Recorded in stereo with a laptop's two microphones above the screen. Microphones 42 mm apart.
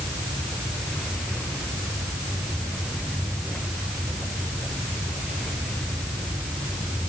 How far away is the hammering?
No hammering in this recording.